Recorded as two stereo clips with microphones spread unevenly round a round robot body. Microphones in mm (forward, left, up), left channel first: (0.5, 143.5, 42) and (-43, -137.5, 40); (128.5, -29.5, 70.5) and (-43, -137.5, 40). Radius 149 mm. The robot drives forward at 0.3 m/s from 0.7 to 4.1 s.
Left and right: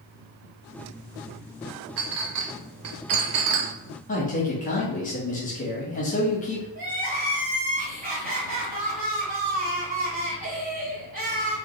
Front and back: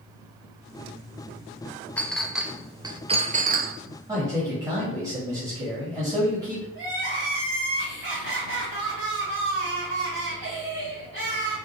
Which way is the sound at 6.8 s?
160° right.